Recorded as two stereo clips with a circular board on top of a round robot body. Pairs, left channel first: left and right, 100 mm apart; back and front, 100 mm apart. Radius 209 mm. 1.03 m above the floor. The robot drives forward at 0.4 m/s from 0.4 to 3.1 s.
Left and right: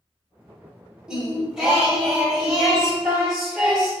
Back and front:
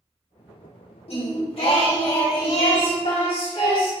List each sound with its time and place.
1.1 s singing: 170° right, 1.4 m; by 3.9 s 175° right, 2 m